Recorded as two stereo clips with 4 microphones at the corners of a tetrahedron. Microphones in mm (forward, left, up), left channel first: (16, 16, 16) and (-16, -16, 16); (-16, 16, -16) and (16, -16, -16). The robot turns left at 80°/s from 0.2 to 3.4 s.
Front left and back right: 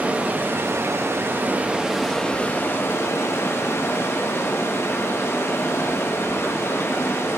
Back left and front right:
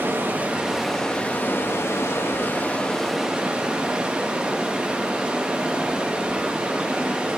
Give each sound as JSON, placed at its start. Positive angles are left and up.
{"t": 0.0, "sound": "running water", "azimuth_deg": -80, "distance_m": 1.3}